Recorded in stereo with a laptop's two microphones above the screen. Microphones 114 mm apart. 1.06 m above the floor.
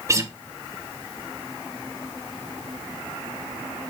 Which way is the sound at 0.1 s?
25° right (ahead or behind).